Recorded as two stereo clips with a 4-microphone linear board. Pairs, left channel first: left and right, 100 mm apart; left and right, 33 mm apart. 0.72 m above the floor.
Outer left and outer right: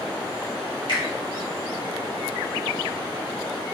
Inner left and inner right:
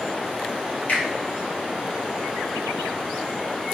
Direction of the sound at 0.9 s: 50° left (ahead or behind).